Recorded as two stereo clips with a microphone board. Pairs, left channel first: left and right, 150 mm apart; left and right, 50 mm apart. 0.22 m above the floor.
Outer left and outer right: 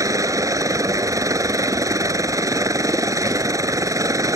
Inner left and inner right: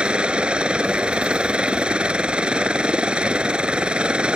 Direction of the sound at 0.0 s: 20° right (ahead or behind).